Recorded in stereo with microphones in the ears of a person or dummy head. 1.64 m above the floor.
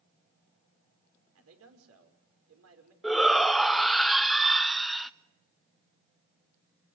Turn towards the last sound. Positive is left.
turn(degrees=-5)  # may be behind; listen again after turning